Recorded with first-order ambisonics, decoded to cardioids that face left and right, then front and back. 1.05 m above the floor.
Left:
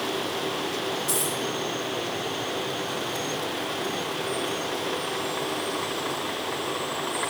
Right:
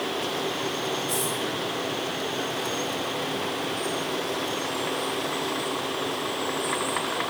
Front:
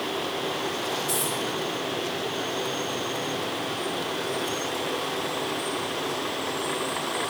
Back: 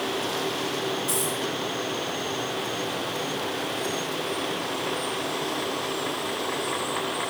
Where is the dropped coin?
125° left, 5 m.